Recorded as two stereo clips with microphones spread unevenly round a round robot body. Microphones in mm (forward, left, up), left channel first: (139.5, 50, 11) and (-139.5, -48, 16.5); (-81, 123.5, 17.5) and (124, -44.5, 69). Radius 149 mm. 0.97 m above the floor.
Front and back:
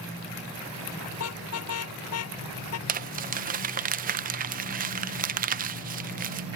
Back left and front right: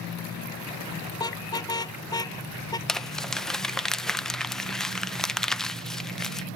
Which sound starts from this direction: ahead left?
A car horn, at 1.1 s.